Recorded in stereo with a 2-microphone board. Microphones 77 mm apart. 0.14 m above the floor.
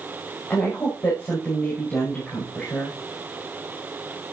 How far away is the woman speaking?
About 5.5 m.